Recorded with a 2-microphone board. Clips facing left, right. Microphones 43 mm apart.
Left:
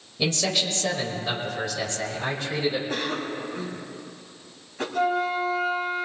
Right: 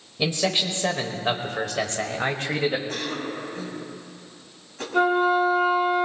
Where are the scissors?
I don't hear scissors.